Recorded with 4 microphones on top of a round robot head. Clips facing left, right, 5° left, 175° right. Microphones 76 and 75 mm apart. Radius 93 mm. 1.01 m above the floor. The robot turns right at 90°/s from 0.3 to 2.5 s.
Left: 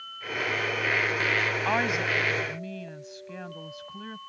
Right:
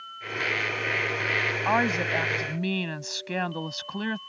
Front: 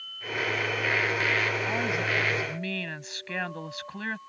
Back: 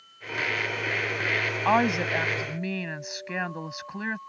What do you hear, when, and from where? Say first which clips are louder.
1.6 s a woman speaking: right 5 dB, back 6 dB; 170° right; by 4.2 s 95° right